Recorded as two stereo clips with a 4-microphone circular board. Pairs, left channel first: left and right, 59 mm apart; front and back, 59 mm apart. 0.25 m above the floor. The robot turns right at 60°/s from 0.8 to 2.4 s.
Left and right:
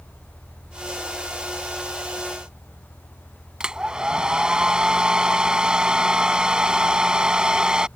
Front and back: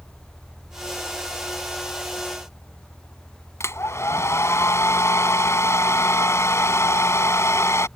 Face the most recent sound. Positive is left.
turn(degrees=-15)